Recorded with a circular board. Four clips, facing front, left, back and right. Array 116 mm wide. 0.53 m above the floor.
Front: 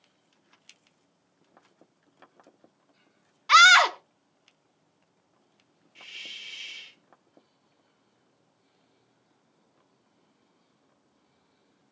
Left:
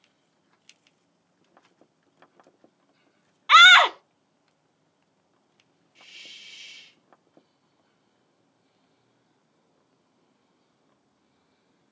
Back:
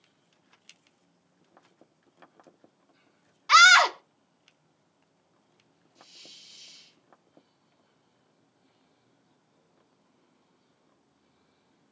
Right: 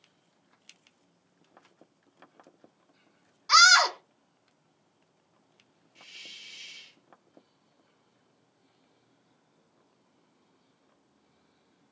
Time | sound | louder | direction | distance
3.5 | a scream | left 6 dB, even | 85° left | 0.7 m
6.0 | a hiss | left 1 dB, front 7 dB | straight ahead | 1.3 m